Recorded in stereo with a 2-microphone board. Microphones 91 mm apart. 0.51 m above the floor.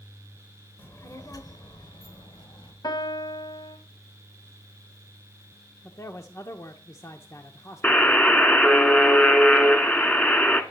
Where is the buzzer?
20° left (ahead or behind), 1.4 m.